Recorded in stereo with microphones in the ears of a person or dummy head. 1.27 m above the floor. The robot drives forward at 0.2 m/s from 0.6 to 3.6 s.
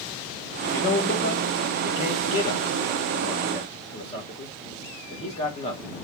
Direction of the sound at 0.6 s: 50° left (ahead or behind).